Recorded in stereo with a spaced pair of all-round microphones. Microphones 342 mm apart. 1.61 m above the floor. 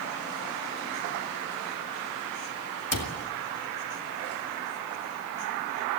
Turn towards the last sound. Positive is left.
turn(degrees=70)  # may be behind; listen again after turning